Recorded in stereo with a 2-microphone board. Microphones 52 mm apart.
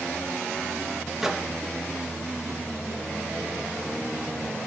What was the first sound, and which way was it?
A microwave, 10° right (ahead or behind).